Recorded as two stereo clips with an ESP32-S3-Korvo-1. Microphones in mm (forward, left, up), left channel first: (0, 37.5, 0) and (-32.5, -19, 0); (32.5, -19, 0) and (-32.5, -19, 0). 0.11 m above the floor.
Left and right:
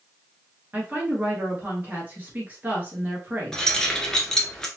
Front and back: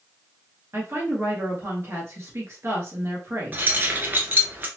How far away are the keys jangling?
About 1.0 m.